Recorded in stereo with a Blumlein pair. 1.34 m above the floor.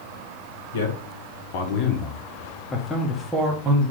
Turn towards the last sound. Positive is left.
turn(degrees=-20)